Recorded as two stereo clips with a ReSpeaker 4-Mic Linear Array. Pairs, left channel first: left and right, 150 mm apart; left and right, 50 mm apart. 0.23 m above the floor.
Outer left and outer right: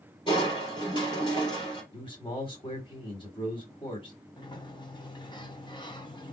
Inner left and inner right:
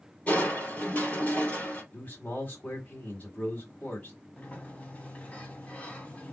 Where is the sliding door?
30° left (ahead or behind), 1.2 m.